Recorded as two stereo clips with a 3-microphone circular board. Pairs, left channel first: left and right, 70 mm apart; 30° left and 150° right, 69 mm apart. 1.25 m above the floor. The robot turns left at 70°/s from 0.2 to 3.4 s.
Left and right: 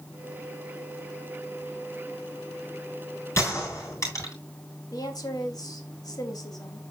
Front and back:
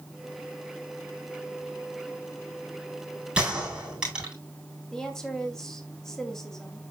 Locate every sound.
3.4 s a gunshot: 135° left, 9 m
4.9 s a woman speaking: 110° left, 2.5 m